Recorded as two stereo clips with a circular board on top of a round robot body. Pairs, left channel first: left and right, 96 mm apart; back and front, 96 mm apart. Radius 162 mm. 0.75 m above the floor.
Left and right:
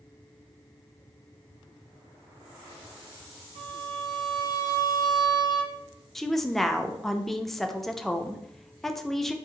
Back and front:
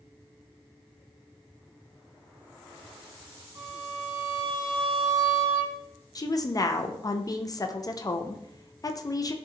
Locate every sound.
3.5 s a violin: 55° right, 0.5 m
6.2 s a woman speaking: 175° left, 0.5 m